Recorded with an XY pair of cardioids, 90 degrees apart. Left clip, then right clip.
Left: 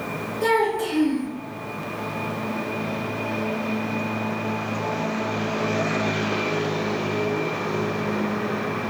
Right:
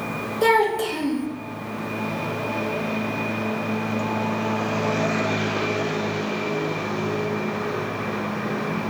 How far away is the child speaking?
About 0.8 m.